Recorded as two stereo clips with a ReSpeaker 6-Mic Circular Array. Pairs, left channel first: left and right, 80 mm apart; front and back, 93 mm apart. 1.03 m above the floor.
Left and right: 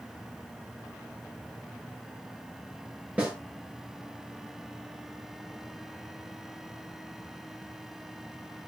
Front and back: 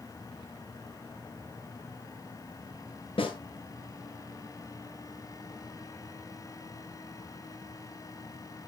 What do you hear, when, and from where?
3.2 s a snare drum: 20° right, 6.5 m